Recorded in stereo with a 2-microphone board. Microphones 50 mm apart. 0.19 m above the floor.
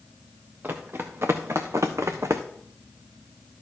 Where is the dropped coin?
I don't hear a dropped coin.